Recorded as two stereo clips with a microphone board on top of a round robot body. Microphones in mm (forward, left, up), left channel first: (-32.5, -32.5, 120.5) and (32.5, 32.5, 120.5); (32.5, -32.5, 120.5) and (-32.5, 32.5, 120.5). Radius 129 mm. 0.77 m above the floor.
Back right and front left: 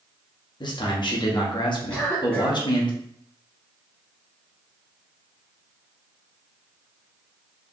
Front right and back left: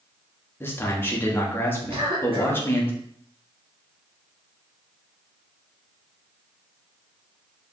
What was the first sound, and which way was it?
A man speaking, 110° right.